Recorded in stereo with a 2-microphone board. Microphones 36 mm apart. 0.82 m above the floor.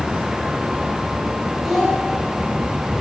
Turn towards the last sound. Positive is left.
turn(degrees=0)  # may be behind; listen again after turning